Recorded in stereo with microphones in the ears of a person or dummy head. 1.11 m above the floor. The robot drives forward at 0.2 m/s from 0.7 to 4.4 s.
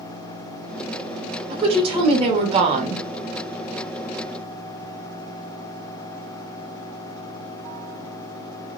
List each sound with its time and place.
1.5 s a woman speaking: 25° right (ahead or behind), 1.2 m; by 3.0 s 30° right (ahead or behind), 0.9 m